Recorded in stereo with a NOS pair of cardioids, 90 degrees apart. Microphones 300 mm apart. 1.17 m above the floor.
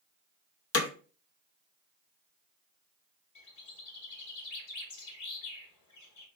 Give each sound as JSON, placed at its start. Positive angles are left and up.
{"t": 0.7, "sound": "hammering", "azimuth_deg": 55, "distance_m": 0.8}
{"t": 3.4, "sound": "a bird", "azimuth_deg": 65, "distance_m": 1.3}